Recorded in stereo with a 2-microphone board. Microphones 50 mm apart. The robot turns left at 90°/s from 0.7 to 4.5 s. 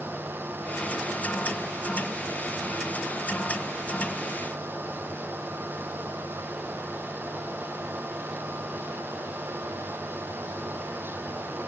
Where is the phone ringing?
No phone ringing in this recording.